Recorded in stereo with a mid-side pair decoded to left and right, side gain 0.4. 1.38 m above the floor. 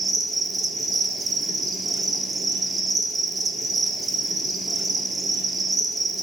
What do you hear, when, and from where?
0.0 s an insect: 35° right, 2 m